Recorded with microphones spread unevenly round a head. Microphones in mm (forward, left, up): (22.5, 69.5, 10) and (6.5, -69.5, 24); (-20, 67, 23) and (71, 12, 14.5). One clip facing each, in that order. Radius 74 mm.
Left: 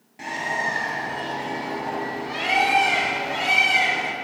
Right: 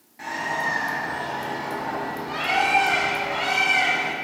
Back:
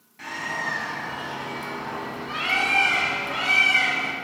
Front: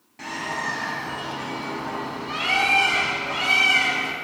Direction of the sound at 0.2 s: 20° left.